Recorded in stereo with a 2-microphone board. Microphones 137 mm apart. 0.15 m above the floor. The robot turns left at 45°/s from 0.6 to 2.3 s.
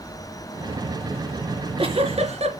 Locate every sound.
1.5 s a giggle: 40° right, 2.5 m; by 2.5 s 80° right, 2.5 m